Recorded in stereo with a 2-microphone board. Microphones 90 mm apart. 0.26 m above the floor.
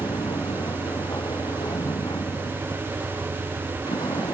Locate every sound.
0.0 s a vehicle: 60° left (ahead or behind)